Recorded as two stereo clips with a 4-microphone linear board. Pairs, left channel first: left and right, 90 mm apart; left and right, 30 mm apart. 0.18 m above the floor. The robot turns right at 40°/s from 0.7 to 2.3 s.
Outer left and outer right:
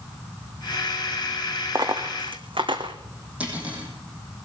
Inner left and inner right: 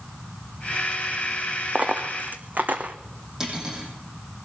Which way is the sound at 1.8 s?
45° right (ahead or behind).